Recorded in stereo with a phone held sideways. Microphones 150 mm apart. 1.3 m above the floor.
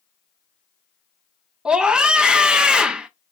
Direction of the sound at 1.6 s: 5° right (ahead or behind).